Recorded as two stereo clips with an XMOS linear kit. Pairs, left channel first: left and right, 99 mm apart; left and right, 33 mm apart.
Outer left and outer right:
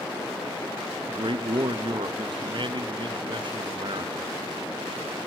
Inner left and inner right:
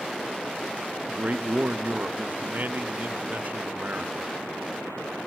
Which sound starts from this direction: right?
A man speaking, at 1.1 s.